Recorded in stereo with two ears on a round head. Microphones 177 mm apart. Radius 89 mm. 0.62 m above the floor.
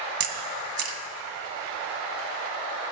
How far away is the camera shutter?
About 1.2 m.